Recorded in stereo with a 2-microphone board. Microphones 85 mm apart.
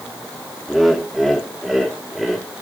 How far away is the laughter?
About 2.5 m.